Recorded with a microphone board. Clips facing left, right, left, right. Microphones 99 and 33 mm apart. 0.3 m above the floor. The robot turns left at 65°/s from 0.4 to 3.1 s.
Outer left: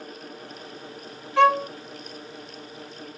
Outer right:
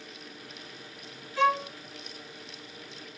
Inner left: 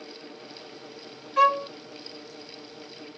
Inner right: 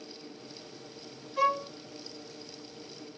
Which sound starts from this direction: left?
A violin, at 1.4 s.